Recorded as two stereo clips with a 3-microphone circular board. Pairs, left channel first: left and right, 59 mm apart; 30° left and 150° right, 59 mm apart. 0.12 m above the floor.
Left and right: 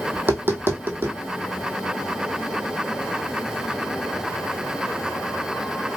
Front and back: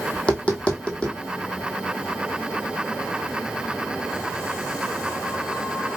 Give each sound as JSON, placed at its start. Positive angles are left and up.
{"t": 0.1, "sound": "tapping", "azimuth_deg": -40, "distance_m": 1.0}